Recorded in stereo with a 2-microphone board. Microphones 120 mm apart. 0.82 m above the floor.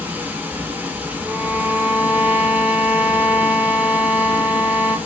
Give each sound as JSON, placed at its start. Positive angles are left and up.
{"t": 0.0, "sound": "running water", "side_deg": -15, "distance_m": 0.8}
{"t": 1.2, "sound": "a violin", "side_deg": -15, "distance_m": 1.7}